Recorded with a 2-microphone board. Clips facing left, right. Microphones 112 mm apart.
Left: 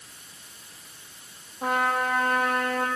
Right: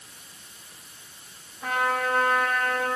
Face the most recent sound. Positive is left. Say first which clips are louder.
# left 1 dB
turn(degrees=65)  # may be behind; listen again after turning